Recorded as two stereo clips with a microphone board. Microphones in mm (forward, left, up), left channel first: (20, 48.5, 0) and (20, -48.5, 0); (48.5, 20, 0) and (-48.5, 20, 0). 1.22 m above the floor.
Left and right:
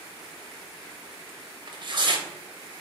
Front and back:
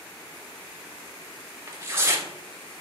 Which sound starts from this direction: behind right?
Tearing paper, at 1.7 s.